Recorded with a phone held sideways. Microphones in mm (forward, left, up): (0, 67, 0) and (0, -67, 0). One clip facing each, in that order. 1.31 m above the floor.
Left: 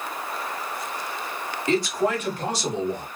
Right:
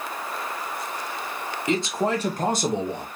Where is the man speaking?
15° right (ahead or behind), 1.4 m; by 3.1 s 65° right (ahead or behind), 1.1 m.